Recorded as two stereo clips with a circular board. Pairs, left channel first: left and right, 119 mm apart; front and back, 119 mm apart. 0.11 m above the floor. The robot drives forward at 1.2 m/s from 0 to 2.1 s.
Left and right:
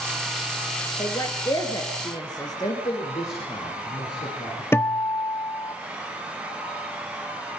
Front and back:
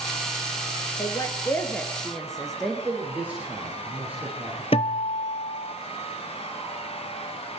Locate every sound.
1.0 s a woman speaking: 40° left, 2.5 m; by 2.8 s 85° left, 2.0 m
2.6 s a man speaking: 105° left, 7.5 m
4.7 s a guitar: 25° left, 0.7 m